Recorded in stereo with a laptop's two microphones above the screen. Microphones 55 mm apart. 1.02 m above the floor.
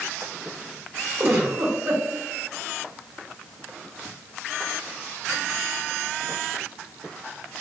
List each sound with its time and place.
1.2 s a giggle: 45° right (ahead or behind), 1.6 m